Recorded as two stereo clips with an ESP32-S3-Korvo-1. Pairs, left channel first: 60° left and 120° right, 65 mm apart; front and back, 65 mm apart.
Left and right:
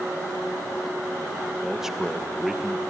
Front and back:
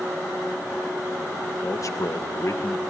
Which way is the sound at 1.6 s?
35° right.